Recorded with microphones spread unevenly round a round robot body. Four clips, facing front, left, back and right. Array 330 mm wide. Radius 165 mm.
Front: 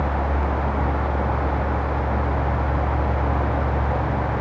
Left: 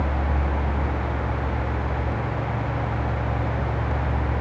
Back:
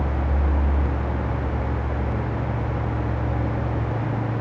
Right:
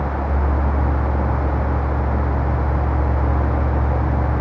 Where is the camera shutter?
No camera shutter in this recording.